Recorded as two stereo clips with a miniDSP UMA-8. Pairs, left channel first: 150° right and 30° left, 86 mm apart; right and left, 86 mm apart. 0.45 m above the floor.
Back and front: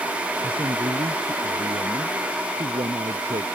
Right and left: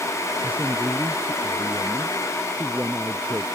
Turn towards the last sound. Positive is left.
turn(degrees=20)